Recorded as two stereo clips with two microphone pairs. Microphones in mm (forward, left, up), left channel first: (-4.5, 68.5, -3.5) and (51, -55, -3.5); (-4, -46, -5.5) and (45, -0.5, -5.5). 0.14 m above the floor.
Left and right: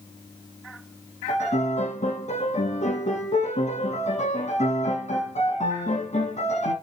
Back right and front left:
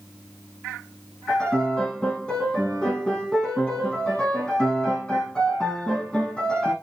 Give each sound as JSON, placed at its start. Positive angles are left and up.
{"t": 1.3, "sound": "a piano", "azimuth_deg": 145, "distance_m": 7.5}